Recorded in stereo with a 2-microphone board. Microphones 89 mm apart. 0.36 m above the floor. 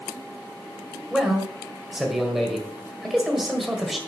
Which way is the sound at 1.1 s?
5° right (ahead or behind).